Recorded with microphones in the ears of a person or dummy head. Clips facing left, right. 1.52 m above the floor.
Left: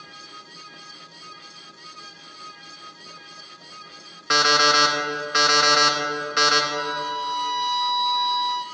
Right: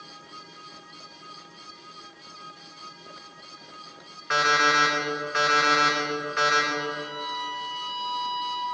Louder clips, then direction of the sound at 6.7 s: Left 3 dB; 65° left (ahead or behind).